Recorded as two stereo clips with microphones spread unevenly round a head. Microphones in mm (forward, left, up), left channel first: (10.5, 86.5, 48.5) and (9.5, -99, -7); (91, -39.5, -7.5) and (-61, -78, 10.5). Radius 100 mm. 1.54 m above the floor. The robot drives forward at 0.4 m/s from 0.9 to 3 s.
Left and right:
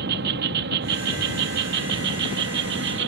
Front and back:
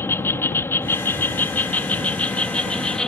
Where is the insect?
60° right; by 3.1 s 70° right.